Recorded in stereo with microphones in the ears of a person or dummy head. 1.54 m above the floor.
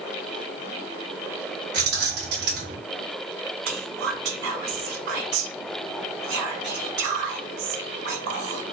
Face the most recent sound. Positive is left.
turn(degrees=-65)  # may be behind; listen again after turning